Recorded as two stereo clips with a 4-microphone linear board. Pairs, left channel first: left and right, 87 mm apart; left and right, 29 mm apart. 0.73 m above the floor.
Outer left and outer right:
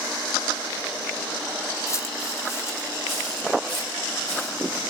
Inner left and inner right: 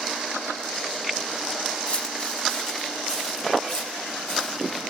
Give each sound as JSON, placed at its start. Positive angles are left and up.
{"t": 1.9, "sound": "footsteps", "side_deg": 35, "distance_m": 1.1}